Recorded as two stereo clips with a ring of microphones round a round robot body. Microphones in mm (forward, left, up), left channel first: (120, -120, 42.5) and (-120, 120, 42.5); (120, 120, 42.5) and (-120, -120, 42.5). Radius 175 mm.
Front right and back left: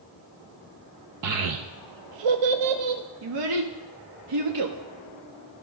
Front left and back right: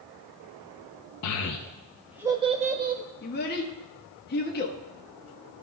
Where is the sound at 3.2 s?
110° left, 0.9 m.